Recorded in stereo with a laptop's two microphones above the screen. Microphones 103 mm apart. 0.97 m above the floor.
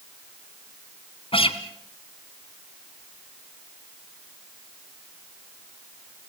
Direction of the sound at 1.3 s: 60° left (ahead or behind).